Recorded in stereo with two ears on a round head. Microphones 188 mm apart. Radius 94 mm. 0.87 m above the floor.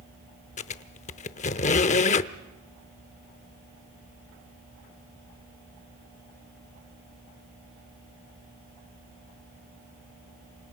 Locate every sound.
0.6 s a squeak: 35° left (ahead or behind), 0.7 m